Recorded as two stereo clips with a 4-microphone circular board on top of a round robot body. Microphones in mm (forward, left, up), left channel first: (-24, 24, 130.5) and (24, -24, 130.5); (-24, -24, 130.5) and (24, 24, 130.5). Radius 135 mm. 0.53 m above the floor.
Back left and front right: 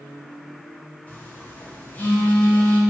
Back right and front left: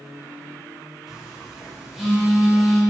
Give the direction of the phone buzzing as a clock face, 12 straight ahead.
8 o'clock.